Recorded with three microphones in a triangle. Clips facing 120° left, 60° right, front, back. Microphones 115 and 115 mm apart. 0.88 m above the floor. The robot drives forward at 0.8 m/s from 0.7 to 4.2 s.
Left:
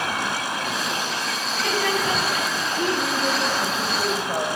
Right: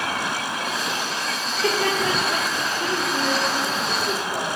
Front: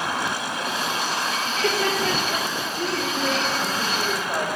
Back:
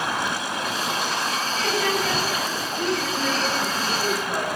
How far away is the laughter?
About 3.5 m.